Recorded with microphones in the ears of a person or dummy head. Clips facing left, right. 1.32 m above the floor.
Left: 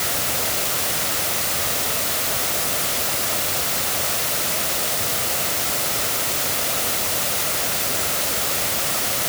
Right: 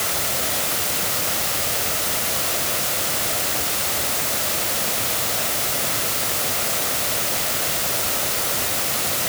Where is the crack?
No crack in this recording.